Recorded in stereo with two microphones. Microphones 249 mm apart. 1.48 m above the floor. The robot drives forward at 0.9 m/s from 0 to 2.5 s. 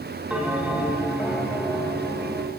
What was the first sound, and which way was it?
A bell, 5° right (ahead or behind).